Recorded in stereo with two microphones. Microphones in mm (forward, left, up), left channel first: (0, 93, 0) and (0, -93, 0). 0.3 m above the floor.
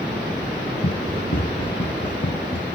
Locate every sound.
0.8 s running footsteps: 60° left (ahead or behind); by 2.8 s 80° left